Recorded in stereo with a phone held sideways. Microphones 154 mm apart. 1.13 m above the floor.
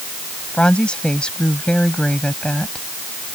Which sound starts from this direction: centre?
A woman speaking, at 0.5 s.